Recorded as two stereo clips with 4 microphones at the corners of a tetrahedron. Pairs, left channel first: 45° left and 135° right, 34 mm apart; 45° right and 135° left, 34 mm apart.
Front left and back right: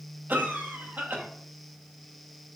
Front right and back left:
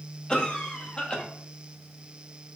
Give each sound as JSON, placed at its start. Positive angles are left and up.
{"t": 0.3, "sound": "a cough", "azimuth_deg": -110, "distance_m": 1.9}